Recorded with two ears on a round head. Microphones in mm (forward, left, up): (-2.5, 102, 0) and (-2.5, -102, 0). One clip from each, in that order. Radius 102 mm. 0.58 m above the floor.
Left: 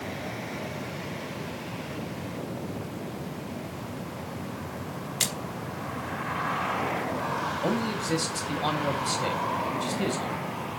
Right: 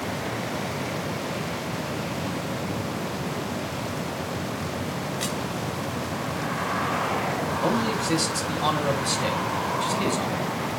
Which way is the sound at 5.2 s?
75° left (ahead or behind).